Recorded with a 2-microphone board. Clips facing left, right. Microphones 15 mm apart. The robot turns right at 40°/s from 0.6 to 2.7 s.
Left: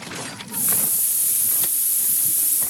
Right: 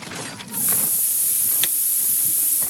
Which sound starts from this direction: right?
A camera shutter, at 1.6 s.